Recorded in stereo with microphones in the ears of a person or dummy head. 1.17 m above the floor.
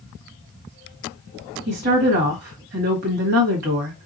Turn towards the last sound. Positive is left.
turn(degrees=-50)  # may be behind; listen again after turning